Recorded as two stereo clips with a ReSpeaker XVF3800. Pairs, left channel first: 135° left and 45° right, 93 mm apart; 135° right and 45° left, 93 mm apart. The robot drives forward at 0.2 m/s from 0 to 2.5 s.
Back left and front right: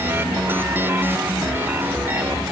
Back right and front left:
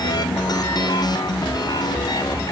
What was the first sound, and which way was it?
Only background noise.